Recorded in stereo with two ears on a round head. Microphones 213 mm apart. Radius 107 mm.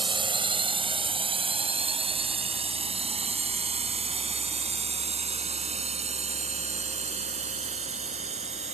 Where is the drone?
20° right (ahead or behind); by 8.7 s 30° right (ahead or behind).